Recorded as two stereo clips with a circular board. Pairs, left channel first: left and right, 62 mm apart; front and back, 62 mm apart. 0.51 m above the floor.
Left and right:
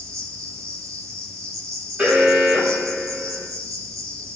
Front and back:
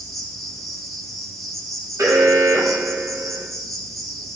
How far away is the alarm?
About 3.5 m.